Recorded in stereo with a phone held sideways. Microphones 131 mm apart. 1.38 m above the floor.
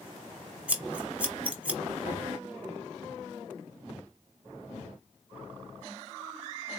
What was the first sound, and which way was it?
Scissors, 10° right (ahead or behind).